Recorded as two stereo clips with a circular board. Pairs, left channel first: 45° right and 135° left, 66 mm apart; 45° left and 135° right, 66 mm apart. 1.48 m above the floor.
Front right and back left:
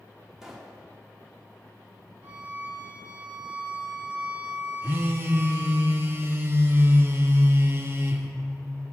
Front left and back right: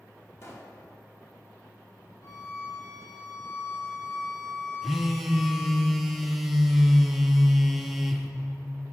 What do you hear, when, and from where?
0.4 s a pop: 55° left, 1.2 m
2.2 s a violin: 70° left, 1.8 m
4.8 s a phone buzzing: 135° left, 0.7 m